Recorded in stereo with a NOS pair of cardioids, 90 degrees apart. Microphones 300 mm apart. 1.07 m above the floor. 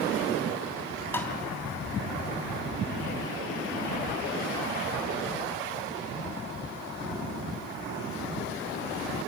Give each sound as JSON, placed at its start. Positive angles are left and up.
{"t": 1.1, "sound": "tapping", "azimuth_deg": 5, "distance_m": 3.0}